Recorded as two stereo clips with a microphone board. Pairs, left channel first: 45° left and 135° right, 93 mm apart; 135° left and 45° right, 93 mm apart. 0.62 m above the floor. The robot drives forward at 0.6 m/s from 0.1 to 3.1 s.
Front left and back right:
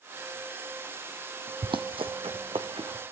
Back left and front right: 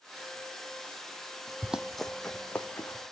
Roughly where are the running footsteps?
Behind right.